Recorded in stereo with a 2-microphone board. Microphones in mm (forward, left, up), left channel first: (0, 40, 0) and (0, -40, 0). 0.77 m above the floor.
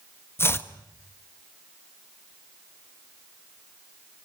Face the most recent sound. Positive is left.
turn(degrees=30)  # may be behind; listen again after turning